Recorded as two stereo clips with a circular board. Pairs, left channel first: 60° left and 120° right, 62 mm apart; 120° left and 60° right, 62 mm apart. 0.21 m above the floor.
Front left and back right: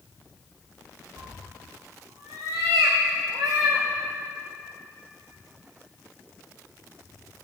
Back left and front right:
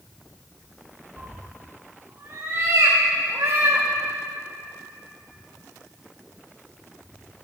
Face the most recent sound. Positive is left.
turn(degrees=-105)